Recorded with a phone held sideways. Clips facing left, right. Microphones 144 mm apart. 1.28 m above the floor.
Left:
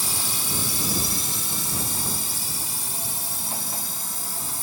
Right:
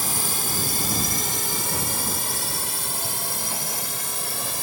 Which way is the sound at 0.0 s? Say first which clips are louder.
Right 3 dB; 60° right (ahead or behind).